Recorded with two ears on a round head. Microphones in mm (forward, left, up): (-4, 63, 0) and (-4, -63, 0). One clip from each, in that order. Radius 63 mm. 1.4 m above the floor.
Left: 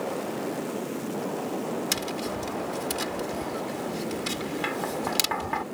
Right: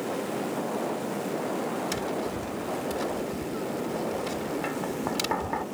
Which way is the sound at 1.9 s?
65° left (ahead or behind).